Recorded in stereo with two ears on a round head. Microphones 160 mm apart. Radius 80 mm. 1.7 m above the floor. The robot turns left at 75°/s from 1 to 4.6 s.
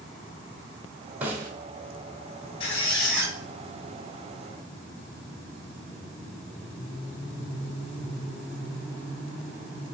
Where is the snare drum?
10° right (ahead or behind), 1.6 m; by 1.5 s 20° right (ahead or behind), 1.6 m.